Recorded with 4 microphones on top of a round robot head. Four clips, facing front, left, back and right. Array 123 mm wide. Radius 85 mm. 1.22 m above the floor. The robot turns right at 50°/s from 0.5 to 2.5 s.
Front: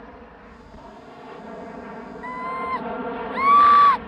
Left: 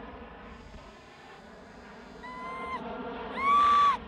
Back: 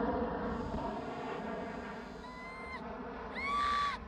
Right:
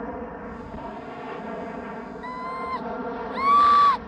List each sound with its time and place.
0.0 s an aircraft: 125° right; by 4.1 s 25° right
2.2 s a scream: 35° right; by 4.0 s 20° right